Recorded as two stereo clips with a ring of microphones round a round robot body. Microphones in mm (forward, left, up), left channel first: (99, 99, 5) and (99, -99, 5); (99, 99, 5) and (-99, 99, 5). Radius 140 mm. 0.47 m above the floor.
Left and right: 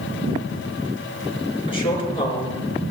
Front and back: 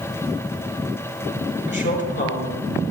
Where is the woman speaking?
25° left, 5.5 m.